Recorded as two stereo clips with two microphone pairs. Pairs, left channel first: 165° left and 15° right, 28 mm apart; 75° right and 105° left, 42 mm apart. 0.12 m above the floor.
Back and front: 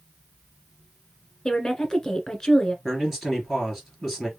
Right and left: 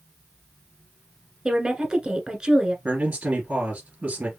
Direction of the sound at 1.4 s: 140° left.